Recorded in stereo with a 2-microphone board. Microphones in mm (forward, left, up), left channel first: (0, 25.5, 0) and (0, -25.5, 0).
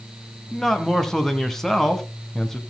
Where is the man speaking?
10° left (ahead or behind), 1.5 m.